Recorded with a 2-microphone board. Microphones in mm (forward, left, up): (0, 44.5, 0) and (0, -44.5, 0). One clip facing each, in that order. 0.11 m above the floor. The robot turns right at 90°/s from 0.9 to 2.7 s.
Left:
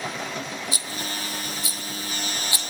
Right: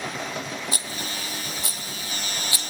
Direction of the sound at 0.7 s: 50° right (ahead or behind).